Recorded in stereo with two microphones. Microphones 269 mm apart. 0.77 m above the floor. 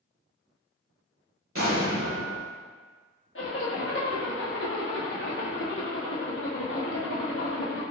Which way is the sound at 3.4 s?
50° left (ahead or behind).